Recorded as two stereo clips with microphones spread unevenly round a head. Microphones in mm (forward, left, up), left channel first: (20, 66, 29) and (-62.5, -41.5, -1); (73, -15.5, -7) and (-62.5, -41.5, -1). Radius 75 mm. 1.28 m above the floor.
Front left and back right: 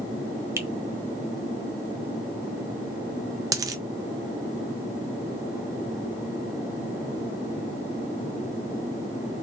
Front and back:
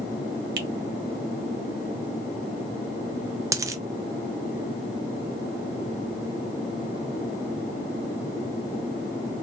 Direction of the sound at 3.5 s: 170° left.